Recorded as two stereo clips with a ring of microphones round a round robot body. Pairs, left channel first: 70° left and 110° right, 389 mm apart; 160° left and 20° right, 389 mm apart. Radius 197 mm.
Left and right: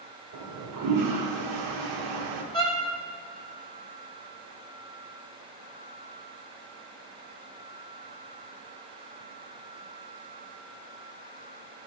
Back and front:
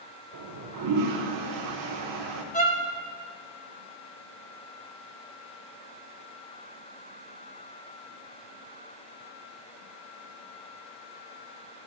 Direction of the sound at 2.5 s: 125° left.